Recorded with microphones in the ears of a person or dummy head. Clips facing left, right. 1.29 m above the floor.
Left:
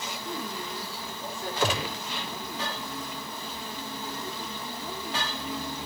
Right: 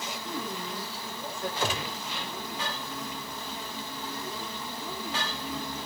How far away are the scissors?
No scissors in this recording.